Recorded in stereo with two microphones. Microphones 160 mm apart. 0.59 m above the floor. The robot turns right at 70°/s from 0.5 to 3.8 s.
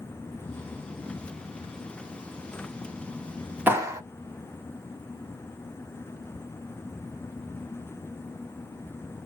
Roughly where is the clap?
Centre.